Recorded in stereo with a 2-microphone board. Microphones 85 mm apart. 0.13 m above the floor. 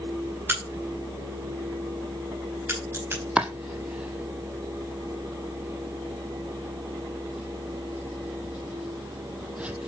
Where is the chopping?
15° right (ahead or behind), 0.9 m.